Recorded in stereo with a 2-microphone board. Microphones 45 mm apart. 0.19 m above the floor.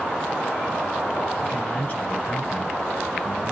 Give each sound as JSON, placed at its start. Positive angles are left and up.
{"t": 1.4, "sound": "a man speaking", "side_deg": 25, "distance_m": 1.8}